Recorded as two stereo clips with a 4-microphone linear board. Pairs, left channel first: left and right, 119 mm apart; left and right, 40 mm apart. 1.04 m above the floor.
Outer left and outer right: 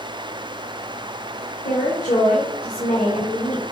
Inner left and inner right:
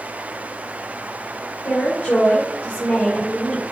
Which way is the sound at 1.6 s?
70° left (ahead or behind).